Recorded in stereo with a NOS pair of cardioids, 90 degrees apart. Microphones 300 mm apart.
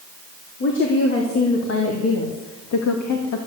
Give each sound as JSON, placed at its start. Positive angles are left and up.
{"t": 0.6, "sound": "a woman speaking", "azimuth_deg": 40, "distance_m": 3.0}